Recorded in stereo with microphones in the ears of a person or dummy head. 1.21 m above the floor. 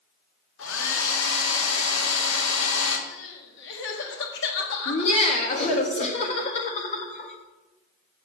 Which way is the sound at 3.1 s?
65° left (ahead or behind).